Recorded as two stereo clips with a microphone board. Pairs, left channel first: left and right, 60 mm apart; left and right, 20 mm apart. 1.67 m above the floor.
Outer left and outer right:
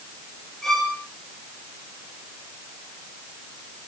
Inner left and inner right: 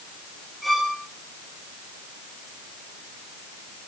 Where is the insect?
I don't hear an insect.